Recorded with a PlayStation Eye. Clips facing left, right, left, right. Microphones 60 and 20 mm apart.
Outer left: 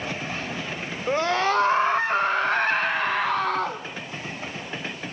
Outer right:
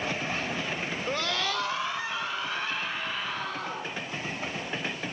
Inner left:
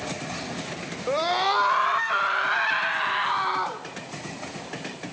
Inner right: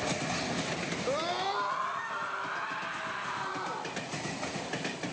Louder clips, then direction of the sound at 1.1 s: Outer left 10 dB, inner left 10 dB; 20° left (ahead or behind).